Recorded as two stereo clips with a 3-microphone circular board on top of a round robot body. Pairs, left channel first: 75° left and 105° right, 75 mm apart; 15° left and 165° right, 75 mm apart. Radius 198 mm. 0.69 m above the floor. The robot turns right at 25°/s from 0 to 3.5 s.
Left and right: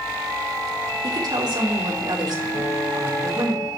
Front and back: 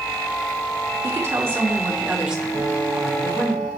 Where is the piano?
60° left, 3.5 m; by 3.7 s 80° left, 3.5 m.